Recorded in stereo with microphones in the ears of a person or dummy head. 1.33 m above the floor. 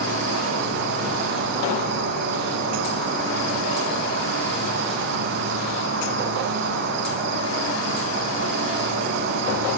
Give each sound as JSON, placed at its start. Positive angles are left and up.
{"t": 0.0, "sound": "an insect", "side_deg": -55, "distance_m": 0.7}